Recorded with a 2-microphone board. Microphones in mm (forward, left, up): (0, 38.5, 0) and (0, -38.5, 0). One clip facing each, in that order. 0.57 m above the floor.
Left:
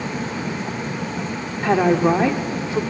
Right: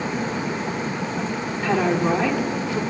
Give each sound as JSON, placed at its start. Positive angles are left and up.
{"t": 1.6, "sound": "a woman speaking", "side_deg": 20, "distance_m": 1.4}